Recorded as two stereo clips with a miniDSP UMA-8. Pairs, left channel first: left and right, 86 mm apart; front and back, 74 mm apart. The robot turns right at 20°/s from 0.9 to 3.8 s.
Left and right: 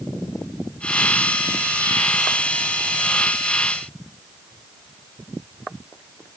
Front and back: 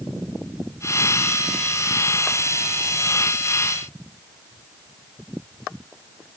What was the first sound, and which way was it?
Only background noise.